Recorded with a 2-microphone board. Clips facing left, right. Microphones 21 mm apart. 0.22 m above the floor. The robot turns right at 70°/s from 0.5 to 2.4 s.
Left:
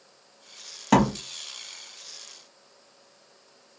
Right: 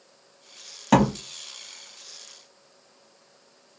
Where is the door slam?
Centre (ahead or behind), 1.2 m; by 1.1 s 5° left (ahead or behind), 1.2 m.